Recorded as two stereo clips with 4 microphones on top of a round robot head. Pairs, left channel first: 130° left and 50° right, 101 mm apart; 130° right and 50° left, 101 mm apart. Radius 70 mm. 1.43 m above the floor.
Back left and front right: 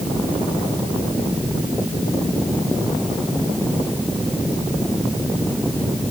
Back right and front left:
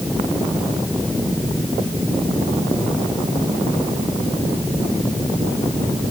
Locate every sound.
Only background noise.